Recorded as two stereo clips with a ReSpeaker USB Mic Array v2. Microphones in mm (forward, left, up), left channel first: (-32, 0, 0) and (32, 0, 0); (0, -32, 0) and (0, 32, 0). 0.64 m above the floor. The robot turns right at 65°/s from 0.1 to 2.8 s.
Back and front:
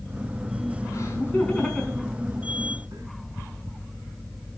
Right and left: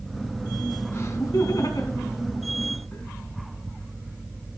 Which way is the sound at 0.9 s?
145° right.